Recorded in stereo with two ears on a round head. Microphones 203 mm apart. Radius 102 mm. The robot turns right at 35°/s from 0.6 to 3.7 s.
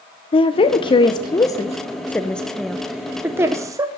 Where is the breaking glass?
No breaking glass in this recording.